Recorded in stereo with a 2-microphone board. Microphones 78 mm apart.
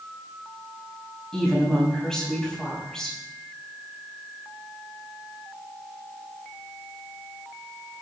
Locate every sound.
1.3 s a woman speaking: 10° left (ahead or behind), 6.5 m